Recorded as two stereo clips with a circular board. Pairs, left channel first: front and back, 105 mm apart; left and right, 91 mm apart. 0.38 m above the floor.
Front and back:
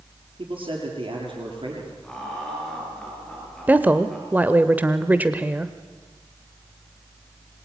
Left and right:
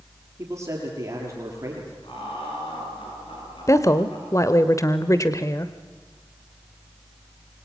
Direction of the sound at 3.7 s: 115° left.